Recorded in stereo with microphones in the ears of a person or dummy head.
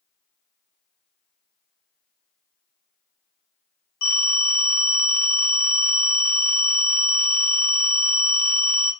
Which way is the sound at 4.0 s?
70° left (ahead or behind).